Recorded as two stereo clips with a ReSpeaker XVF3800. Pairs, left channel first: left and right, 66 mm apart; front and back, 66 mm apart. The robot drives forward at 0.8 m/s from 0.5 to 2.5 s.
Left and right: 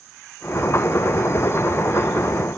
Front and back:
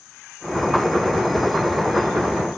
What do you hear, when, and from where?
Only background noise.